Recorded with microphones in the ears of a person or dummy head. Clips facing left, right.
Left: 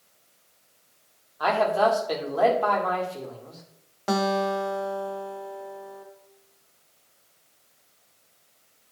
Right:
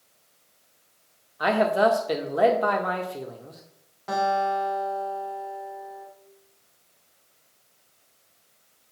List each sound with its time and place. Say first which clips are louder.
1.4 s a man speaking: right 1 dB; 25° right (ahead or behind), 1.3 m
4.1 s a guitar: even; 70° left (ahead or behind), 0.9 m